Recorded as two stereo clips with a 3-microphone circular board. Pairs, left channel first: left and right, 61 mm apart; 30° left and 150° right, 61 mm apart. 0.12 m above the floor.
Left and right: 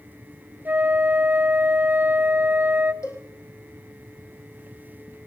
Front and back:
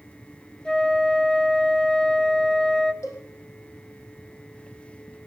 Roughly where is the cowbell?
Ahead left.